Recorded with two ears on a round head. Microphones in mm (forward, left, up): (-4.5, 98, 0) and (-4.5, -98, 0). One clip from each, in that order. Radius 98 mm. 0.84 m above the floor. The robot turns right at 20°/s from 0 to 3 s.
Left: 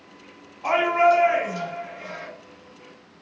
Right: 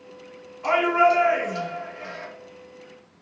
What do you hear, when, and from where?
0.6 s a shout: 65° right, 2.0 m; by 2.3 s 30° right, 2.0 m